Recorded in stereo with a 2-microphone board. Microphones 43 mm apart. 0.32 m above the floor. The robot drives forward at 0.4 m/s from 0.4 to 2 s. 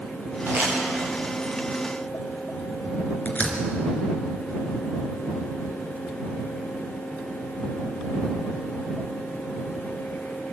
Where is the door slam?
35° left (ahead or behind), 3.5 m.